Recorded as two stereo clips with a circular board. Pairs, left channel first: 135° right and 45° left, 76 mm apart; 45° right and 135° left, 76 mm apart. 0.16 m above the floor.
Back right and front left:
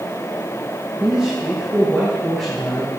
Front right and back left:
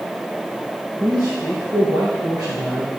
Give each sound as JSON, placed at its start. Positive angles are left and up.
{"t": 1.0, "sound": "a man speaking", "azimuth_deg": 120, "distance_m": 1.7}